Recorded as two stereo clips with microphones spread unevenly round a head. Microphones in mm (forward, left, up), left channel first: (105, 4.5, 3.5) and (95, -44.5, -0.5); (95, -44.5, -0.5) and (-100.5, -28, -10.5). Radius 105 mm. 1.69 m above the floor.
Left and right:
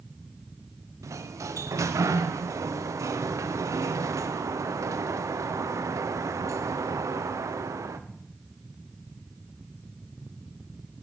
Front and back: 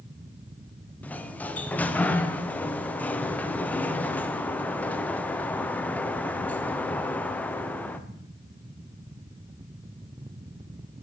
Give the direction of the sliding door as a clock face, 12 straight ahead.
3 o'clock.